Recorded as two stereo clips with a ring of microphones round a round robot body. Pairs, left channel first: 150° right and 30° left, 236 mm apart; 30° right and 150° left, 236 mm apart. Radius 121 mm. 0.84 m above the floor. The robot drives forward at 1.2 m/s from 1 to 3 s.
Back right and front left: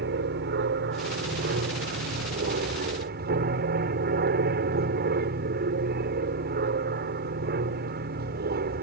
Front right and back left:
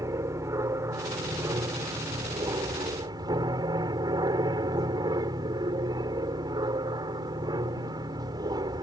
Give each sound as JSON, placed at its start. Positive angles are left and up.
{"t": 0.0, "sound": "an aircraft", "azimuth_deg": 75}